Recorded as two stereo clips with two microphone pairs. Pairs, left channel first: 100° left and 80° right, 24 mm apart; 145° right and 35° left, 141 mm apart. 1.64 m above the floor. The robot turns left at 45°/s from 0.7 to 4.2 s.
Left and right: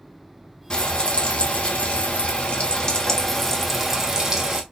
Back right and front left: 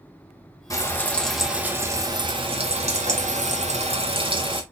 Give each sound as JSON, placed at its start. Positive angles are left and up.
{"t": 0.7, "sound": "frying", "azimuth_deg": 155, "distance_m": 0.9}